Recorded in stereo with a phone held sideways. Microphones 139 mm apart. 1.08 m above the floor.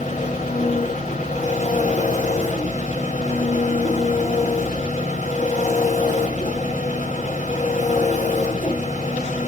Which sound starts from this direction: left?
An engine running, at 0.0 s.